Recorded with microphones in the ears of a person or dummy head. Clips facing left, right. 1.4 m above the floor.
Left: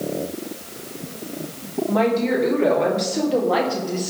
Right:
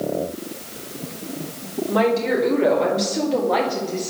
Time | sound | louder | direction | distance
1.9 | a woman speaking | even | 10° right (ahead or behind) | 2.5 m